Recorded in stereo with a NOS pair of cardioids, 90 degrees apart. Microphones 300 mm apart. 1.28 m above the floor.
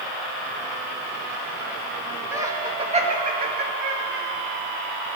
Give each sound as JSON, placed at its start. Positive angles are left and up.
{"t": 2.3, "sound": "laughter", "azimuth_deg": -10, "distance_m": 2.5}